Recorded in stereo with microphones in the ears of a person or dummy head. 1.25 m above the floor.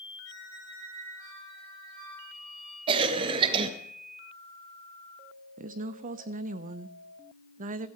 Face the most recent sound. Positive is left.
turn(degrees=-40)  # may be behind; listen again after turning